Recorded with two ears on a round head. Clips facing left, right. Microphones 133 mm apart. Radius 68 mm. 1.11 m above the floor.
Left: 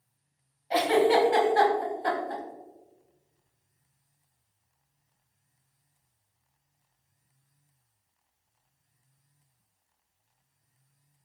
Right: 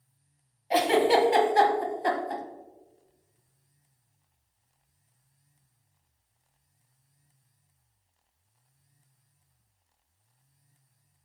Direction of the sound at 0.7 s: 20° right (ahead or behind).